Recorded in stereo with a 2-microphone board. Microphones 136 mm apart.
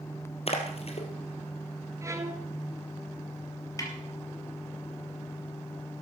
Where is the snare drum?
25° left (ahead or behind), 3 m.